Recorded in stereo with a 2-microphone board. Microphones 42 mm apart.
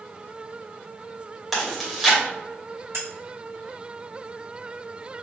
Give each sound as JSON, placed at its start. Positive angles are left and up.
{"t": 1.5, "sound": "chewing", "side_deg": 0, "distance_m": 1.6}
{"t": 2.9, "sound": "cutlery clinking", "side_deg": -80, "distance_m": 1.4}